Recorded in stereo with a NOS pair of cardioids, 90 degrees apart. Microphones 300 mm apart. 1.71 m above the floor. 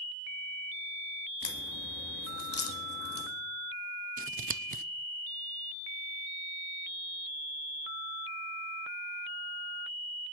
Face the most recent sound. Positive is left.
turn(degrees=-30)